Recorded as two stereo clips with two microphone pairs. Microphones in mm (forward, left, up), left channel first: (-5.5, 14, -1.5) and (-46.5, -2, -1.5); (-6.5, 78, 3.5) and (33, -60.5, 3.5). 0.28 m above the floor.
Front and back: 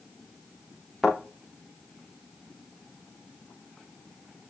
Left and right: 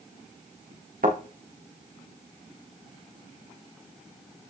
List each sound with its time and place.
1.0 s a thud: 70° right, 6 m